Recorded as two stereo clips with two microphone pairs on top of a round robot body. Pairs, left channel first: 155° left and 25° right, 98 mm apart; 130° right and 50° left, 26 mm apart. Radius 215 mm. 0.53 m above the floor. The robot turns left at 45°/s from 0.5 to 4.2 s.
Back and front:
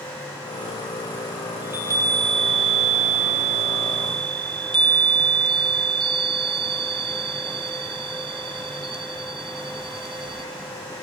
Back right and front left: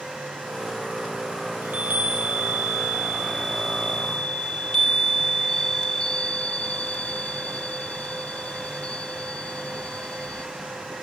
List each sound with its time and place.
1.6 s a chime: 45° left, 0.8 m; by 10.4 s 70° right, 0.8 m